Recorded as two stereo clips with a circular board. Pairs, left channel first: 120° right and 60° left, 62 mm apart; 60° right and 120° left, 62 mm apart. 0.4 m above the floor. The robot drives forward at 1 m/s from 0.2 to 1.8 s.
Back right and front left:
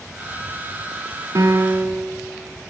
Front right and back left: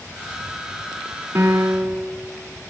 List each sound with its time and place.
1.4 s a piano: 75° left, 0.7 m; by 2.1 s 115° left, 0.7 m